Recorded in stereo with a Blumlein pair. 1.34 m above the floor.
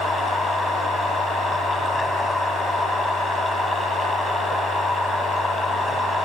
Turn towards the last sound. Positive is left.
turn(degrees=10)